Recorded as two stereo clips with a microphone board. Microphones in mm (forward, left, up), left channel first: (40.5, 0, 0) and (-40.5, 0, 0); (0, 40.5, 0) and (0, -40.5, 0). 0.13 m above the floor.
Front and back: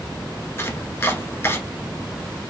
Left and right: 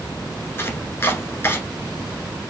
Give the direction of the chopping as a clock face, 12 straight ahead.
10 o'clock.